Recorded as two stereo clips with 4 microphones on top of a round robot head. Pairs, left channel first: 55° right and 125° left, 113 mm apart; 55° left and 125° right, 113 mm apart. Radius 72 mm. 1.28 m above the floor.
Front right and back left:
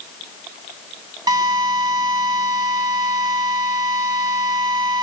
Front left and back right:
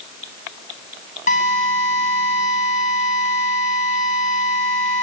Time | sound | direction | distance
1.3 | a drill | 70° left | 8.5 m